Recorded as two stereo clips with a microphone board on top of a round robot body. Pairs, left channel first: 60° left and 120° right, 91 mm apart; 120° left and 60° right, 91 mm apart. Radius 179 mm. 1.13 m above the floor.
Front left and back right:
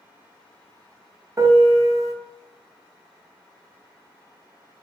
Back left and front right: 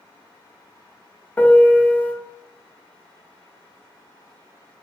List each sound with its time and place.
1.4 s a piano: 170° right, 0.6 m